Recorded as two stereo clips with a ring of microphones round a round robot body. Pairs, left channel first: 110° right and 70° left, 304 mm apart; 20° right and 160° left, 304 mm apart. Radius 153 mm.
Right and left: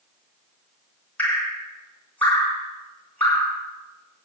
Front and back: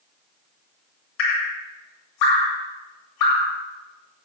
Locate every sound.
1.2 s dripping: 25° right, 8 m